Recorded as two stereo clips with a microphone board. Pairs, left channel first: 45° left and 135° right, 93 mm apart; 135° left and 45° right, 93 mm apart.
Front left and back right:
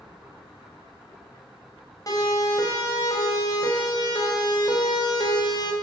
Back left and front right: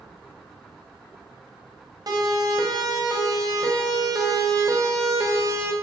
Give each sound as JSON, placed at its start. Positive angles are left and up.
{"t": 2.1, "sound": "a siren", "azimuth_deg": 0, "distance_m": 6.0}